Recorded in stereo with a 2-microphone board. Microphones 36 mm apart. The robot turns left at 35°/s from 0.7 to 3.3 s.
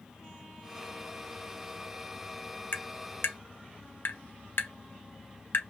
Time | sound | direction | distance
2.7 | tapping | 65° left (ahead or behind) | 1.0 m